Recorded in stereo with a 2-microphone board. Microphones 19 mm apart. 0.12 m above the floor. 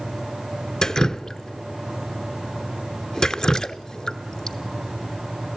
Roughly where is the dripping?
Left.